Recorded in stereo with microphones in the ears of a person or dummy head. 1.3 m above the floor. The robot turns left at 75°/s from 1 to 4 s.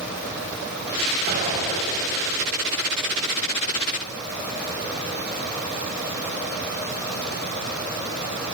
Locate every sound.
1.3 s an explosion: 130° right, 4.5 m; by 2.0 s 170° left, 4.5 m